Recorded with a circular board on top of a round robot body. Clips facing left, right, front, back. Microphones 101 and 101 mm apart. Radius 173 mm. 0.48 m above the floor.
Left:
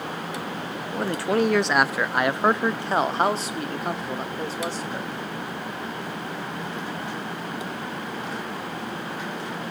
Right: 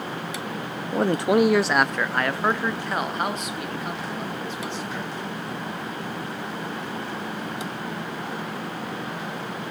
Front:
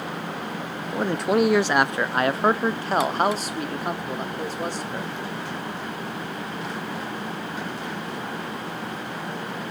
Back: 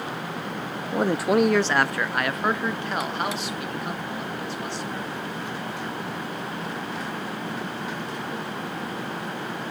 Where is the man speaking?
115° right, 0.8 m; by 5.1 s 45° left, 2 m.